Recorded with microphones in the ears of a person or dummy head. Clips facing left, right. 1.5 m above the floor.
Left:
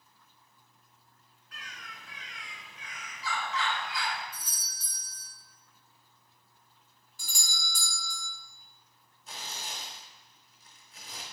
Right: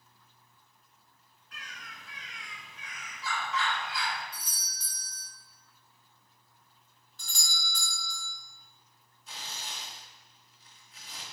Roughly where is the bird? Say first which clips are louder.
Even; right.